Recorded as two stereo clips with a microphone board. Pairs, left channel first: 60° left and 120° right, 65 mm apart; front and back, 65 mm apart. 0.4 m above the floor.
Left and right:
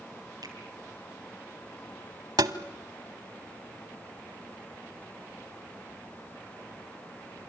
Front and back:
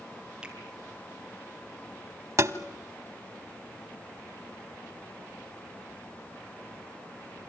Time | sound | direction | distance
0.4 | a finger snap | 100° right | 6 m
2.4 | tapping | 135° right | 0.9 m